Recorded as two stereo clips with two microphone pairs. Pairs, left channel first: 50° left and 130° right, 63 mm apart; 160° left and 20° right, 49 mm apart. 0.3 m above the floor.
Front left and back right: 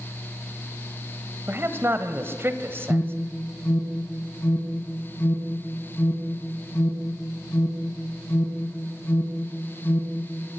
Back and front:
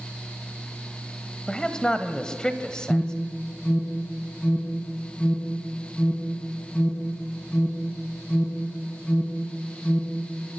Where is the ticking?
I don't hear ticking.